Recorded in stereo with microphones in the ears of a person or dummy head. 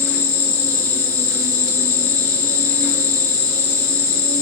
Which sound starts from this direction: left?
An insect, at 0.0 s.